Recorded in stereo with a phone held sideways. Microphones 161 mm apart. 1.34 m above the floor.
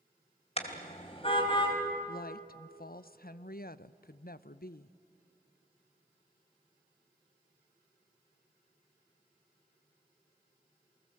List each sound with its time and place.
0.6 s a car horn: 40° left (ahead or behind), 2.5 m; by 1.8 s 30° left (ahead or behind), 3.5 m
2.1 s a woman speaking: 65° left (ahead or behind), 0.6 m